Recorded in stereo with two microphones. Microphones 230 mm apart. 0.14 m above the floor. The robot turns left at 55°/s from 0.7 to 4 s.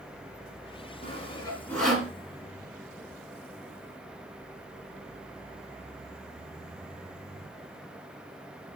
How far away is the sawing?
About 1.8 m.